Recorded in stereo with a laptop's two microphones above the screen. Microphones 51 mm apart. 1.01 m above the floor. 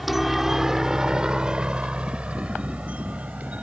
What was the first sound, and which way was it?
A helicopter, 5° right (ahead or behind).